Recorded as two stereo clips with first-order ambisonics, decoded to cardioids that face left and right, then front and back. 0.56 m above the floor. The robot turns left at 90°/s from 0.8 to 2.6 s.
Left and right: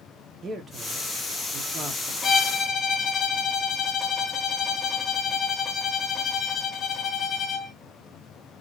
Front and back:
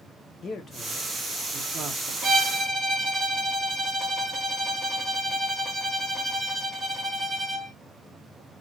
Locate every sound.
0.4 s a man speaking: 35° right, 0.8 m; by 2.1 s 155° right, 0.8 m
2.2 s a violin: 150° left, 1.0 m; by 7.7 s 115° left, 1.0 m